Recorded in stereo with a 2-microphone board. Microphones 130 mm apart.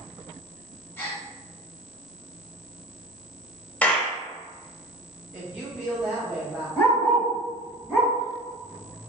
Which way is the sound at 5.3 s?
10° right (ahead or behind).